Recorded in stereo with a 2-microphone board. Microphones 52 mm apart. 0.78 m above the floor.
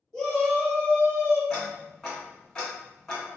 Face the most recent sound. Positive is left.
turn(degrees=15)  # may be behind; listen again after turning